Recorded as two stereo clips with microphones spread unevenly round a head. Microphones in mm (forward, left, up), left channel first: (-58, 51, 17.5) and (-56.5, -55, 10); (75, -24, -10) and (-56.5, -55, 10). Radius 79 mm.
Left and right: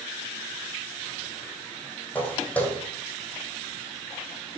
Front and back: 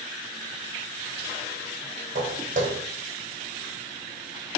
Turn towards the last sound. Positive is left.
turn(degrees=165)